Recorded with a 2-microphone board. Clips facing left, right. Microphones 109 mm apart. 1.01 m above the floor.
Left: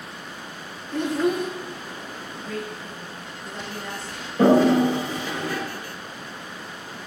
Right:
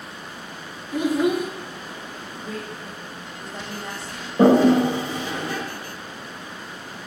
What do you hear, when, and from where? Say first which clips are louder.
0.9 s a child speaking: right 2 dB; 10° right (ahead or behind), 0.6 m
2.4 s a woman speaking: left 1 dB; 25° right (ahead or behind), 1.7 m
4.4 s a toilet flushing: right 1 dB; 25° right (ahead or behind), 1.1 m